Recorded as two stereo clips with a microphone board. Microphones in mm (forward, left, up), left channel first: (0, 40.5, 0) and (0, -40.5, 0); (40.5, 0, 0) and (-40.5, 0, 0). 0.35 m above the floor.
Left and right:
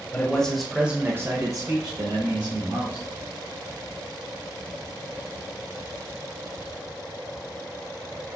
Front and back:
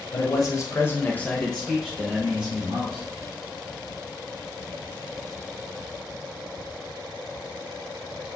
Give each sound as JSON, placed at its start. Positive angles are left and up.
{"t": 0.1, "sound": "a man speaking", "azimuth_deg": 20, "distance_m": 1.2}